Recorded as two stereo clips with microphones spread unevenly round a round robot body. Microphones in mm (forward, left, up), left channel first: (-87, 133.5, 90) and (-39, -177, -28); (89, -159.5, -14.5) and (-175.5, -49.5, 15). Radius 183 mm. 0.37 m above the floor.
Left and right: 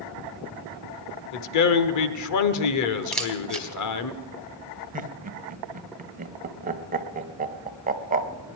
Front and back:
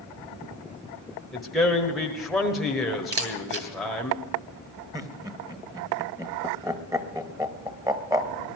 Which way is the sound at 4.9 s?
120° right.